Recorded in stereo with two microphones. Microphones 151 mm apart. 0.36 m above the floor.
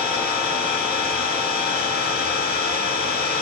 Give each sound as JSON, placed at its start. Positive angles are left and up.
{"t": 0.0, "sound": "an engine running", "side_deg": -50, "distance_m": 6.0}